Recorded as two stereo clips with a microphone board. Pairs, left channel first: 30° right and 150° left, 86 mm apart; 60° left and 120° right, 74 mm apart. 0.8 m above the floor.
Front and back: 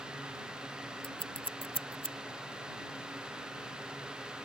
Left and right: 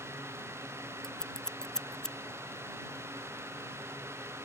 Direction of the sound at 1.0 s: 20° right.